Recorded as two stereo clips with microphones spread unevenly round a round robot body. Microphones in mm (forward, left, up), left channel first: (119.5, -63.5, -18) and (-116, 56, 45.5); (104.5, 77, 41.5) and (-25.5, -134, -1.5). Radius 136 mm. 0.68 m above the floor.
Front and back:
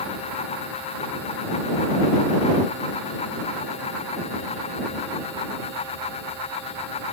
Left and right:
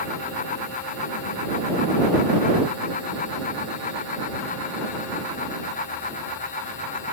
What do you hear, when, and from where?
Only background noise.